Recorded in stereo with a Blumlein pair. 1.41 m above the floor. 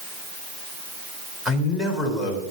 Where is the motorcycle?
No motorcycle in this recording.